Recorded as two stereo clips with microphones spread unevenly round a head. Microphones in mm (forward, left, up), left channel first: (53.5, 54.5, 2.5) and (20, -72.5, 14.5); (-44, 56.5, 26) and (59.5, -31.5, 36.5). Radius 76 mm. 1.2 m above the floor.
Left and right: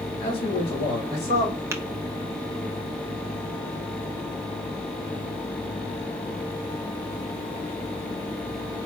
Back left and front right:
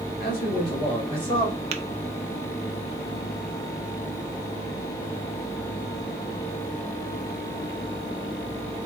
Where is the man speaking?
125° left, 1.7 m; by 1.6 s 95° left, 3 m.